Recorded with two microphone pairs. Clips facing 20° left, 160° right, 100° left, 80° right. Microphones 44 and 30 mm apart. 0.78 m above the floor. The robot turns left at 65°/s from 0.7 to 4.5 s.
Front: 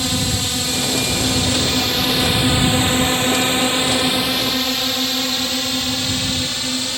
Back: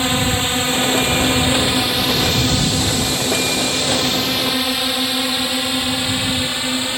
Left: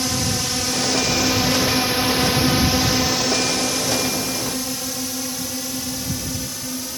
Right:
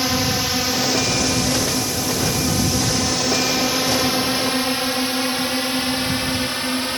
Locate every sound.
0.0 s a drone: 130° right; by 7.0 s 100° right